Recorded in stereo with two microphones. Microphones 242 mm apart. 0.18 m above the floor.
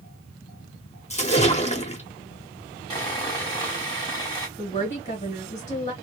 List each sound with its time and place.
1.1 s a splash: 30° left (ahead or behind), 0.7 m
2.9 s sawing: 15° left (ahead or behind), 1.5 m
4.6 s a woman speaking: 20° left (ahead or behind), 1.2 m